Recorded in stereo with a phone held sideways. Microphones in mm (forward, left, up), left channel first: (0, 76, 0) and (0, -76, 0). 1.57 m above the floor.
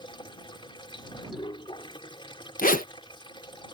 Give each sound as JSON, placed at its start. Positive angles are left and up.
{"t": 0.0, "sound": "running water", "side_deg": 30}
{"t": 2.6, "sound": "a zipper", "side_deg": 65}